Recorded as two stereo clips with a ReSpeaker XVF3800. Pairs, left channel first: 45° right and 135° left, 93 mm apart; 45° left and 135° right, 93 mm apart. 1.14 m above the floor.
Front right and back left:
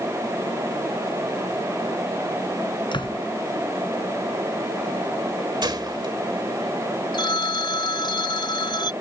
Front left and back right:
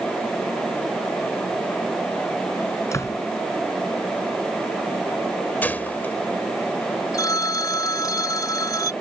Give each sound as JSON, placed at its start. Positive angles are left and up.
{"t": 2.9, "sound": "a door slam", "azimuth_deg": -15}
{"t": 5.6, "sound": "a gunshot", "azimuth_deg": 110}
{"t": 7.1, "sound": "a phone ringing", "azimuth_deg": -5}